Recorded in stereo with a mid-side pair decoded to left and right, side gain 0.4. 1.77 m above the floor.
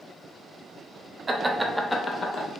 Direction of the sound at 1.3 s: 30° right.